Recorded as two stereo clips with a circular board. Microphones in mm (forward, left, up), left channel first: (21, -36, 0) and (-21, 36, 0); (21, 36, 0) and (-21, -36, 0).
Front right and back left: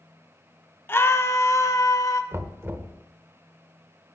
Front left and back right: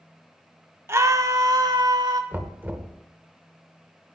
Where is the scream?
100° right, 0.9 m.